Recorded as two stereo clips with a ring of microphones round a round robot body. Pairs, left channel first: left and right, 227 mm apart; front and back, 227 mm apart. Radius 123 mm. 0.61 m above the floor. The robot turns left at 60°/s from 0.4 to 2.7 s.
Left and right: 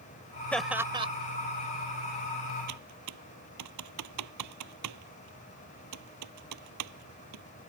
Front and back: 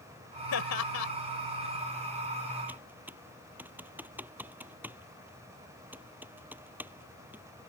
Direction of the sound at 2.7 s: 95° right.